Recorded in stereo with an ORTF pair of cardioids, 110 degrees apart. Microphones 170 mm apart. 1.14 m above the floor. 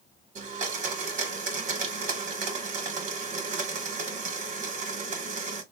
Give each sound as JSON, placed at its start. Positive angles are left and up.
{"t": 0.3, "sound": "a blender", "azimuth_deg": -50, "distance_m": 1.0}